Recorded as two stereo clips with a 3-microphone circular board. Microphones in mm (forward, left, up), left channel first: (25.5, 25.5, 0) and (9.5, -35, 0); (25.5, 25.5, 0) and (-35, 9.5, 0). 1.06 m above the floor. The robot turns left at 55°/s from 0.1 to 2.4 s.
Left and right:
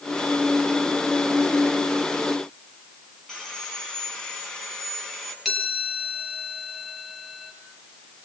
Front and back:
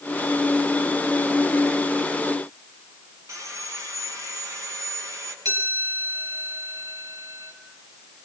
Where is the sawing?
155° left, 6.5 m.